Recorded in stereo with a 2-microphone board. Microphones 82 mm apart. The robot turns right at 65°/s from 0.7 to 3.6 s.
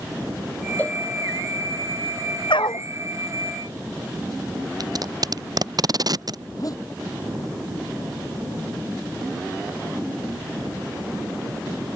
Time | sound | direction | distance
0.8 | a cowbell | 25° left (ahead or behind) | ?
2.5 | a dog barking | 90° left | ?
4.8 | tape being pulled | 55° right (ahead or behind) | ?
6.5 | a zipper | 50° left (ahead or behind) | ?